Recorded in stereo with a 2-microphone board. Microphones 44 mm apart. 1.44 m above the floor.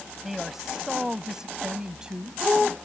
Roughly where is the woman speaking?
Centre.